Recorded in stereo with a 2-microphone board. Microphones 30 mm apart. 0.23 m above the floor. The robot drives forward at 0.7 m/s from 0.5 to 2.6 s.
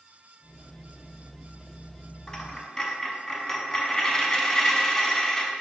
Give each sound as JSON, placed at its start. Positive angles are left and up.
{"t": 2.3, "sound": "a dropped coin", "side_deg": 25, "distance_m": 0.7}